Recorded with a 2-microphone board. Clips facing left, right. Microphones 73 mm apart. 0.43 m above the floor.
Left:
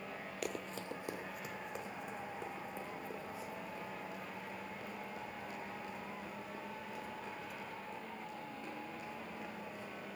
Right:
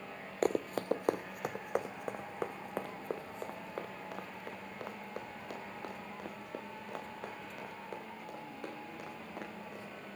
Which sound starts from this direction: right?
Running footsteps, at 0.4 s.